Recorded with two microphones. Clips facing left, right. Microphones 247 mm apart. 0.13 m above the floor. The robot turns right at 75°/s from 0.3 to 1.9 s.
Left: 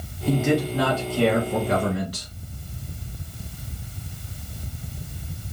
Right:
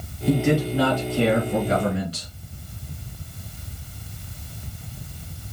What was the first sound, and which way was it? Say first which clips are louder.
A man speaking: right 1 dB; 5° left (ahead or behind).